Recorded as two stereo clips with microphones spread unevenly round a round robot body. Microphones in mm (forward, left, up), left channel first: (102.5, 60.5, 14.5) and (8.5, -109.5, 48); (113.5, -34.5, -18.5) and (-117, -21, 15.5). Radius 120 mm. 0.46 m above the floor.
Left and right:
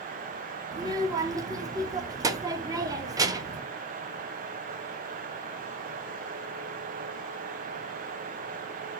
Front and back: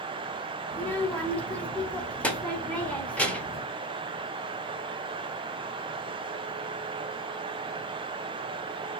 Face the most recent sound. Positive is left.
turn(degrees=-50)